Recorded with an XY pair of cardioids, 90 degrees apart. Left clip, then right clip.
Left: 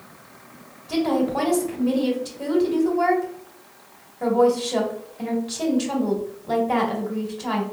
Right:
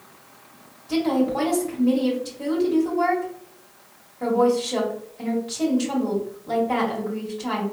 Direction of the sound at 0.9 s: 15° left.